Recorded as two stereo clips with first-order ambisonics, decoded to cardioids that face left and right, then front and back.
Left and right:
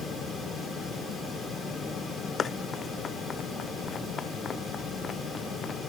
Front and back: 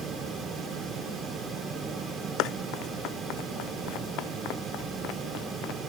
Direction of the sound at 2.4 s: 25° left.